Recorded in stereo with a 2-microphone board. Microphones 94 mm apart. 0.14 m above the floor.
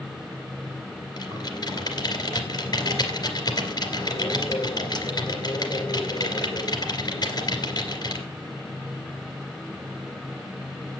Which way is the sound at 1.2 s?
45° left (ahead or behind).